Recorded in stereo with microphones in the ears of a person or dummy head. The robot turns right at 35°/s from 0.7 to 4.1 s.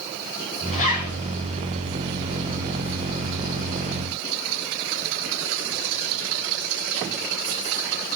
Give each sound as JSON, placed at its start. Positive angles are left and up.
{"t": 0.7, "sound": "a zipper", "side_deg": 40, "distance_m": 7.5}